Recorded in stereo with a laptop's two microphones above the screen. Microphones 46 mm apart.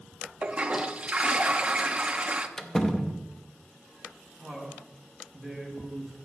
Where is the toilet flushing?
25° right (ahead or behind), 0.7 m.